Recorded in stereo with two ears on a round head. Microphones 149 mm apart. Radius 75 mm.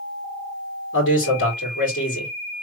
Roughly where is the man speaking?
Left.